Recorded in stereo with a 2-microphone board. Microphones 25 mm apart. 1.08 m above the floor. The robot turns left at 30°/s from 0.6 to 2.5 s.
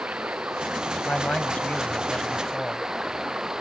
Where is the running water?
85° right; by 3.6 s 145° right.